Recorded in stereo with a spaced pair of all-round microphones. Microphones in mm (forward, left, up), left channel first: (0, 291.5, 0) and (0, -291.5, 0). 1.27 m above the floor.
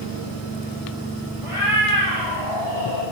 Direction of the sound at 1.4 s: 55° left (ahead or behind).